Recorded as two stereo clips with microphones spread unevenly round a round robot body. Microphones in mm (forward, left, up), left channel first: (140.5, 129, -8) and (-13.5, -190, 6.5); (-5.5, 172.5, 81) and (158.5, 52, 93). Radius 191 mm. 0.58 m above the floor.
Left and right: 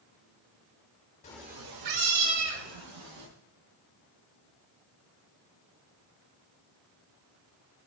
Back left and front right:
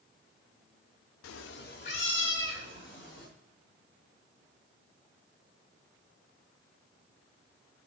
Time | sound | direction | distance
1.2 | a cat meowing | 135° left | 0.5 m